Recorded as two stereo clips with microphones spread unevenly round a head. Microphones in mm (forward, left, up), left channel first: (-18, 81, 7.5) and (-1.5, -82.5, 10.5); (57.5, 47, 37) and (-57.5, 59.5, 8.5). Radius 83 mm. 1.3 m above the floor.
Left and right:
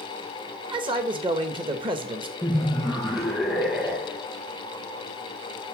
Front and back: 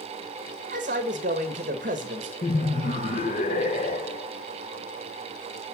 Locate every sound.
0.7 s a man speaking: 145° right, 1.2 m
2.4 s laughter: 5° left, 1.0 m